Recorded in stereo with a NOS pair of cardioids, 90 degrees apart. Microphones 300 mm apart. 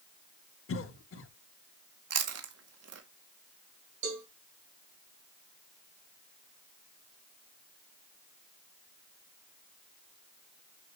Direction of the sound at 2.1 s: 55° right.